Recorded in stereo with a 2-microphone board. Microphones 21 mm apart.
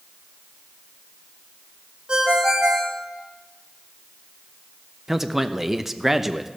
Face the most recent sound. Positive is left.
turn(degrees=-15)  # may be behind; listen again after turning